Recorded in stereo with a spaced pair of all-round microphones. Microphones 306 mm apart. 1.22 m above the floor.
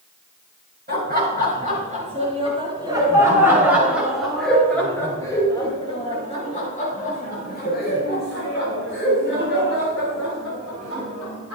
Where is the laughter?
30° right (ahead or behind), 6.5 m; by 11.6 s 50° left (ahead or behind), 10 m.